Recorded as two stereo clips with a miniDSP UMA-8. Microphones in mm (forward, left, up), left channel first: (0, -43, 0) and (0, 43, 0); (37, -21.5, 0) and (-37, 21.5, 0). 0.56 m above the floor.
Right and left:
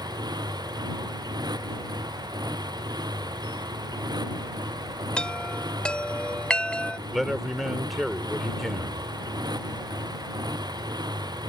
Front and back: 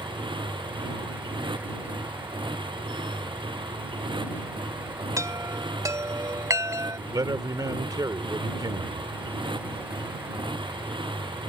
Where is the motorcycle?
130° left.